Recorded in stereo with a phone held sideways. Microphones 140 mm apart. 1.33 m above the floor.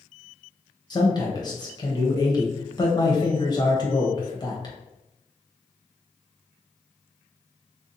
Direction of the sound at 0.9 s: 30° left (ahead or behind).